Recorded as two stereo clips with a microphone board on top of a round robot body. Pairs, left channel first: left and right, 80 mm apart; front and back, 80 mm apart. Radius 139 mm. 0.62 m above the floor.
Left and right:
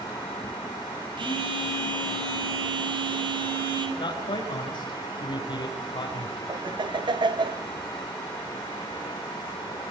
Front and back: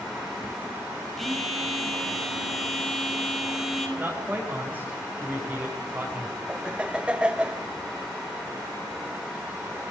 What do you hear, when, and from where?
1.2 s a phone buzzing: 85° right, 6 m
4.0 s a man speaking: 105° left, 5 m
6.5 s laughter: 100° right, 1.8 m